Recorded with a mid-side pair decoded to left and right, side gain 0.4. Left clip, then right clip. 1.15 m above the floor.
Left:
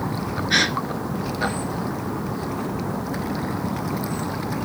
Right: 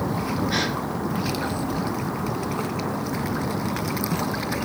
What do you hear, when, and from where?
0.5 s a gasp: 70° left, 1.9 m